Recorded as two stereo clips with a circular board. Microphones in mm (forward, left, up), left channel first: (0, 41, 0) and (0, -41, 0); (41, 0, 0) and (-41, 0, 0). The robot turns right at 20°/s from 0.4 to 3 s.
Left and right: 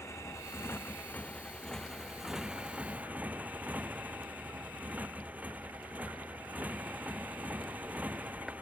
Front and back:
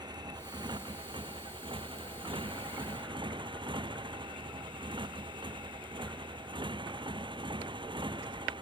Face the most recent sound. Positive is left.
turn(degrees=-160)